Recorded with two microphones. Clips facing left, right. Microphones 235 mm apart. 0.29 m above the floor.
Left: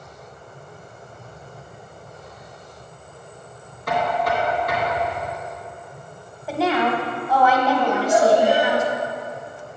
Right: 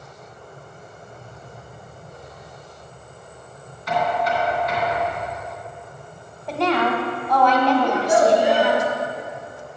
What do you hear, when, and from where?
3.9 s knocking: 50° left (ahead or behind), 2.5 m
6.5 s a woman speaking: 5° left (ahead or behind), 1.4 m
7.8 s a child speaking: 70° right (ahead or behind), 2.5 m